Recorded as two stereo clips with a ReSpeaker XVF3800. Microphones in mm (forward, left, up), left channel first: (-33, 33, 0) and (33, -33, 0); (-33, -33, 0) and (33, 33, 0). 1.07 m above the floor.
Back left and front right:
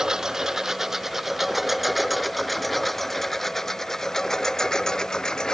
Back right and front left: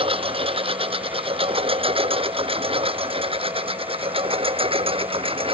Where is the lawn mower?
40° left; by 5.5 s 50° left.